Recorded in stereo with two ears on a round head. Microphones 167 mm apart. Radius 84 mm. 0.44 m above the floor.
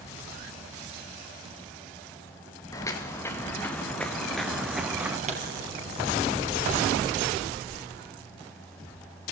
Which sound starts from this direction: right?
A pop, at 5.3 s.